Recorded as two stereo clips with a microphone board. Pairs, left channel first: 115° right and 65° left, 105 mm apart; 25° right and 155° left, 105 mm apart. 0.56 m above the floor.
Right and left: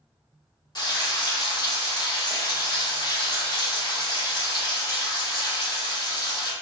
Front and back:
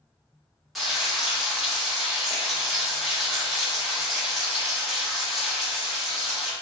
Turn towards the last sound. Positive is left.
turn(degrees=-110)